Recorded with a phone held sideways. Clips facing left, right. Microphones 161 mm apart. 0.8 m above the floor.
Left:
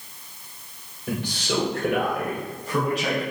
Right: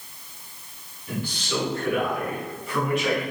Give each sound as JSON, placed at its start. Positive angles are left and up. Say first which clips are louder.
{"t": 1.1, "sound": "a man speaking", "louder": "left 2 dB", "side_deg": 85, "distance_m": 2.5}